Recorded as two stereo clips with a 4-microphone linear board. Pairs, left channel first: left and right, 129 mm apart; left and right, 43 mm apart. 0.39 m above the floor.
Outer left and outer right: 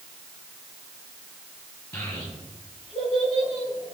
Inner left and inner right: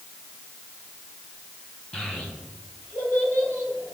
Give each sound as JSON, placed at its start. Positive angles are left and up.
{"t": 1.9, "sound": "a child speaking", "side_deg": 25, "distance_m": 3.0}